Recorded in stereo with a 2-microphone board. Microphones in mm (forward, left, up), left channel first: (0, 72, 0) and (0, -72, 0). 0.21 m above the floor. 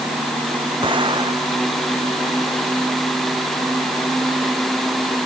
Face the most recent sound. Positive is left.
turn(degrees=-35)  # may be behind; listen again after turning